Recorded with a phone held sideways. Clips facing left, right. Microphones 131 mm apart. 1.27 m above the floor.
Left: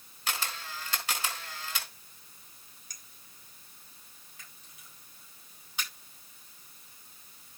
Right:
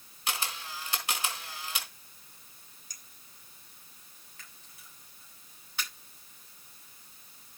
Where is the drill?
I don't hear a drill.